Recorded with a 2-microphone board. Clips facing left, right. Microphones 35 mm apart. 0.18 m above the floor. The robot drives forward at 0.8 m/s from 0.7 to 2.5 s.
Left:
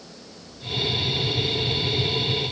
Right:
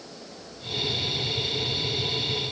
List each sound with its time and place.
Only background noise.